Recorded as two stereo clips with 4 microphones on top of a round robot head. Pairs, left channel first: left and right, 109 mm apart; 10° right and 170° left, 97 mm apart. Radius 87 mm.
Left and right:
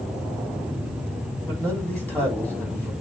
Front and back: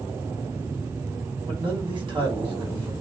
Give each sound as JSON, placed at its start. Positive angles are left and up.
{"t": 1.5, "sound": "a man speaking", "azimuth_deg": 160, "distance_m": 1.8}